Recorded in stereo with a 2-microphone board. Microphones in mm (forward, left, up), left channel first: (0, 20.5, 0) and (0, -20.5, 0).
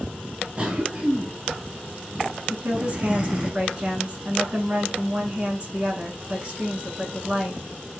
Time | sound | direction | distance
0.6 | a cough | 25° right (ahead or behind) | 1.4 m
2.5 | a woman speaking | 30° right (ahead or behind) | 1.3 m